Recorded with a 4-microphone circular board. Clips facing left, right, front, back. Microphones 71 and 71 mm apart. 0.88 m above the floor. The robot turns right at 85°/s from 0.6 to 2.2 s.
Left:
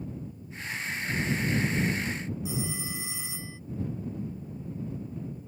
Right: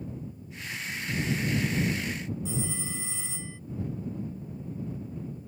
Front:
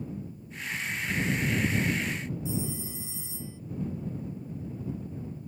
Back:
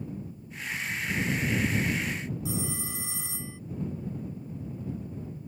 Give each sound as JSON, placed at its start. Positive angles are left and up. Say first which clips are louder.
{"t": 2.5, "sound": "a phone ringing", "louder": "even, front 1 dB", "azimuth_deg": 170}